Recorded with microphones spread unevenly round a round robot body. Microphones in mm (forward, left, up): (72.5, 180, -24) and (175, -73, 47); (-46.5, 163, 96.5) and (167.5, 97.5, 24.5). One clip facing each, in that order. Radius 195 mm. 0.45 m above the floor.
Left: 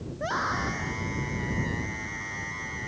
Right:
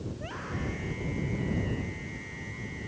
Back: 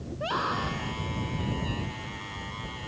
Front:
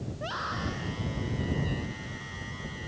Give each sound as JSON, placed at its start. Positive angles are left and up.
{"t": 0.1, "sound": "a scream", "azimuth_deg": 145}